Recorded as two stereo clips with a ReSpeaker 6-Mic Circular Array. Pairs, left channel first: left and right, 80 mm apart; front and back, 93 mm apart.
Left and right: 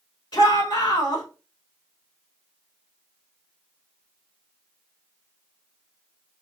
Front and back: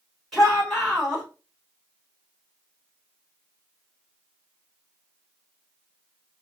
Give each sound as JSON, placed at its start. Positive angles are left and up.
{"t": 0.3, "sound": "a shout", "azimuth_deg": 90, "distance_m": 3.0}